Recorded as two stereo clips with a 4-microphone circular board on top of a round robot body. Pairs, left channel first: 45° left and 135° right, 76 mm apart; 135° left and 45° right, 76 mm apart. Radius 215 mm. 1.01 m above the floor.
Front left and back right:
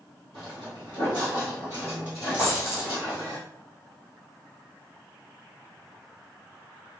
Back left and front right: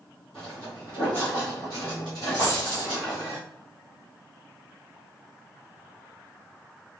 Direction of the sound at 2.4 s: 155° left.